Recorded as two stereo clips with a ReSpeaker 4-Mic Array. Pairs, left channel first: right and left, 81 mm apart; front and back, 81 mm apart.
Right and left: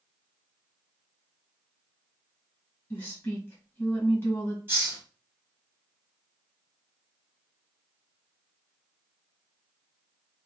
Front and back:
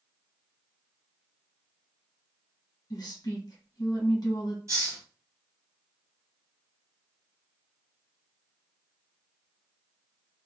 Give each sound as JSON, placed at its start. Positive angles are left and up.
{"t": 2.9, "sound": "a woman speaking", "azimuth_deg": -30, "distance_m": 1.3}
{"t": 4.7, "sound": "a hiss", "azimuth_deg": 150, "distance_m": 1.3}